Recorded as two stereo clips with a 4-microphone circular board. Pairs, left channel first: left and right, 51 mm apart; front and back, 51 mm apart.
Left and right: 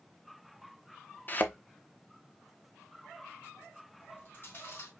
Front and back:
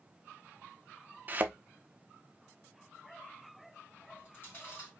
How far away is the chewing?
About 3.5 m.